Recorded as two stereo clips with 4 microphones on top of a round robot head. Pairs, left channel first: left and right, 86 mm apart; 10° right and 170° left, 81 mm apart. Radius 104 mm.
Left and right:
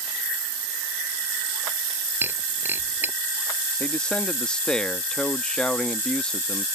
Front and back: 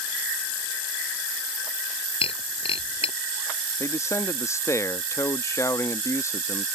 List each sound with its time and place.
2.2 s breaking glass: 20° right
3.8 s a man speaking: 20° left